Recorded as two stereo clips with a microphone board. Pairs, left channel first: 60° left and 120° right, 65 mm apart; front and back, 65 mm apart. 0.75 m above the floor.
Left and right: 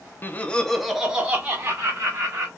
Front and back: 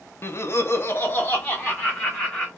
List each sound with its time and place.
0.2 s laughter: 20° left, 0.6 m; by 2.5 s 70° right, 1.4 m